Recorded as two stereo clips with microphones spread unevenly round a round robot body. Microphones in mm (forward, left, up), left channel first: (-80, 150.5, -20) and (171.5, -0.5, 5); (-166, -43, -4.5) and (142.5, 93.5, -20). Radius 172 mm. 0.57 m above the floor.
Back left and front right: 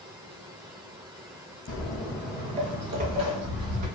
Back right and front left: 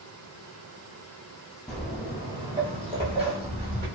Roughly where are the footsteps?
Behind left.